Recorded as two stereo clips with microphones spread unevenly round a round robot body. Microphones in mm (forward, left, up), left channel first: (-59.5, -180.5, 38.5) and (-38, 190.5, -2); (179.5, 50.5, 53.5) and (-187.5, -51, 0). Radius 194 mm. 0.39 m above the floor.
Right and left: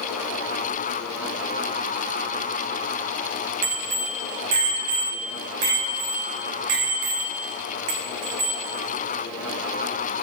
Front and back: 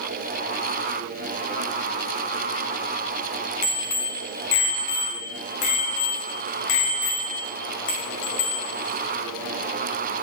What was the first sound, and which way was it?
A bicycle bell, 70° left.